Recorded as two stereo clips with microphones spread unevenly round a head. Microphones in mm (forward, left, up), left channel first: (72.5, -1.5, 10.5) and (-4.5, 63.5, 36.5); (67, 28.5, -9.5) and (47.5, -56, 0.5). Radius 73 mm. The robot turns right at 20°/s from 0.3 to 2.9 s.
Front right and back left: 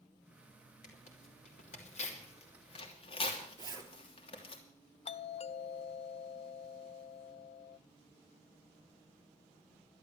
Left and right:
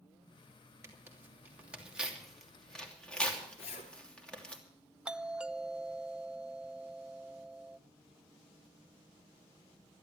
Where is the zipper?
90° left, 3 m.